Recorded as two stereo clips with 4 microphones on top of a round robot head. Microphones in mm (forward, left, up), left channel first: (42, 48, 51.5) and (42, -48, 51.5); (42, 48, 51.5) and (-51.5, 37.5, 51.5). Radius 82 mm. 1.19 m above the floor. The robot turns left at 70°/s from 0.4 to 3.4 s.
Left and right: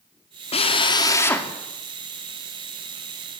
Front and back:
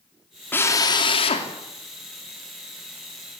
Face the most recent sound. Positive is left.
turn(degrees=-125)